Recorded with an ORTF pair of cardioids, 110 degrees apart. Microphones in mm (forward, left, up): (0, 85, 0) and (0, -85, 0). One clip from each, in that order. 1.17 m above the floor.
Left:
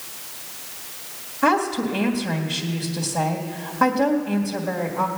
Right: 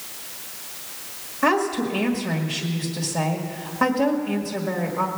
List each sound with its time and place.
1.4 s a woman speaking: straight ahead, 1.7 m